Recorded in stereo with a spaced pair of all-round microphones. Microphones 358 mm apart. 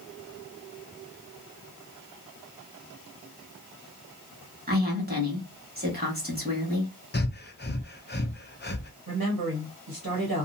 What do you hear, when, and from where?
4.7 s a woman speaking: 25° right (ahead or behind), 1.4 m
7.1 s breathing: 30° left (ahead or behind), 0.5 m
9.1 s a woman speaking: 70° right (ahead or behind), 1.2 m